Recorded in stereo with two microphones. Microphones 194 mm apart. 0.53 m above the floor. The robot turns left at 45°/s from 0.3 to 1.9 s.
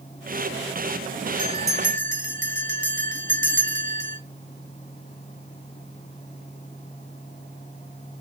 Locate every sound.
1.4 s a bell: 35° right (ahead or behind), 2 m; by 4.2 s 60° right (ahead or behind), 2 m